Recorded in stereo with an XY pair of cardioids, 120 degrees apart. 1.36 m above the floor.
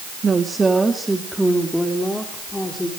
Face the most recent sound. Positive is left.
turn(degrees=15)